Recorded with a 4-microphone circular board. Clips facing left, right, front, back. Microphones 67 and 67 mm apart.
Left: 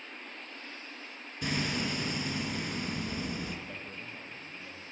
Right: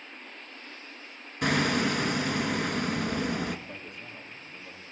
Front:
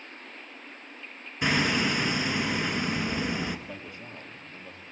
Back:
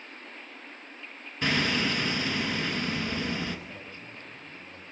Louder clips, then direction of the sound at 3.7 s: Even, front 2 dB; 10° right.